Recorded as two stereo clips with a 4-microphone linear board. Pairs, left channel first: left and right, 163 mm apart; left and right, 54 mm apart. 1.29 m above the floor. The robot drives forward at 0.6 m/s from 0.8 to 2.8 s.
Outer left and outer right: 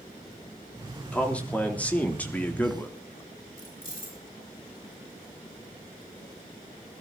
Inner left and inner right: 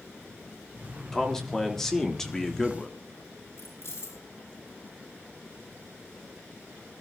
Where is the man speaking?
10° left (ahead or behind), 4 m.